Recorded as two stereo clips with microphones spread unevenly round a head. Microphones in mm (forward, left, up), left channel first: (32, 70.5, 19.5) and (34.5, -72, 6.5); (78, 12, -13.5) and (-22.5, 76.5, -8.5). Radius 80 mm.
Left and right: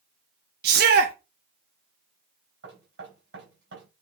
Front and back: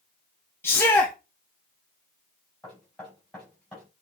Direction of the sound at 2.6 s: 120° right.